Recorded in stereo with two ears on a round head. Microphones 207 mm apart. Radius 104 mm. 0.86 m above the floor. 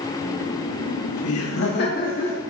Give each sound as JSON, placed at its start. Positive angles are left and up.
{"t": 0.2, "sound": "laughter", "side_deg": 45, "distance_m": 2.5}